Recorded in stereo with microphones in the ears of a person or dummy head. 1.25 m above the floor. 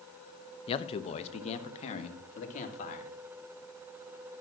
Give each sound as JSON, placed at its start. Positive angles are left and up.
{"t": 0.7, "sound": "a man speaking", "side_deg": 30, "distance_m": 0.8}